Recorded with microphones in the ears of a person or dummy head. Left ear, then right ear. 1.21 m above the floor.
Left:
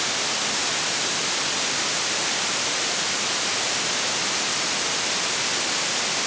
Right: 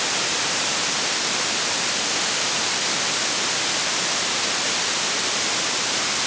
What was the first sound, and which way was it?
Only background noise.